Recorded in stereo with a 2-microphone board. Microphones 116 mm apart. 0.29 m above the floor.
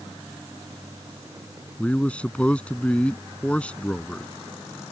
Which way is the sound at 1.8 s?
10° left (ahead or behind).